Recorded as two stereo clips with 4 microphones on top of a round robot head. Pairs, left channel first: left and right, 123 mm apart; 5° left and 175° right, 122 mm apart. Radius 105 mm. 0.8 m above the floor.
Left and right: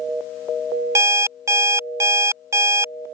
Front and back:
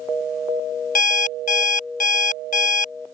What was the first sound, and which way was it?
An alarm clock, 20° right.